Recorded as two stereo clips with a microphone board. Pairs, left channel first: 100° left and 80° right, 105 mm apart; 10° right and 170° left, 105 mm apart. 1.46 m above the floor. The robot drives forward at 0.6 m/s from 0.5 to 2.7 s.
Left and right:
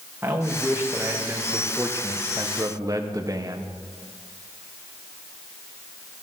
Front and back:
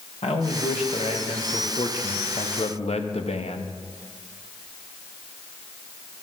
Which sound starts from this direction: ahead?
A man speaking, at 0.2 s.